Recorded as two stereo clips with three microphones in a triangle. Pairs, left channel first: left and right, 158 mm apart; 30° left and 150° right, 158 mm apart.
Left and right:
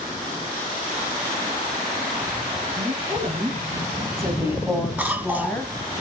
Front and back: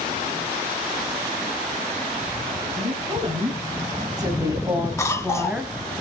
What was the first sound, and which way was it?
A woman speaking, 110° right.